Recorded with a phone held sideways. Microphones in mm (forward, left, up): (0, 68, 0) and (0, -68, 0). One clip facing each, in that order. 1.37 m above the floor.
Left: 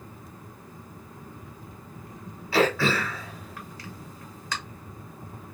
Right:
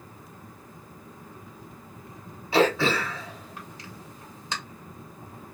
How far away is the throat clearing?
About 1.0 m.